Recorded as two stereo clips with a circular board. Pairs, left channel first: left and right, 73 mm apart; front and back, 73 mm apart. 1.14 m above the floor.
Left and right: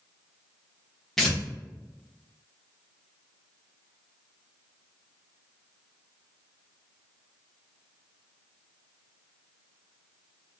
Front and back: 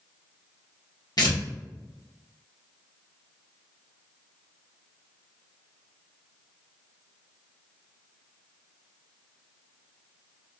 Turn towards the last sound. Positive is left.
turn(degrees=5)